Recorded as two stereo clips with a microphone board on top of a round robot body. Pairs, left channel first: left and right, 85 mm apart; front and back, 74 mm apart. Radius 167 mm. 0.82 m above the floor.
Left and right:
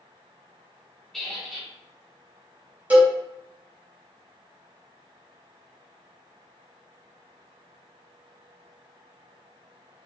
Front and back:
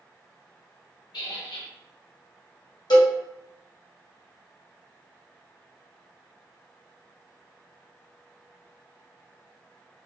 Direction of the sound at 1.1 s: 5° left.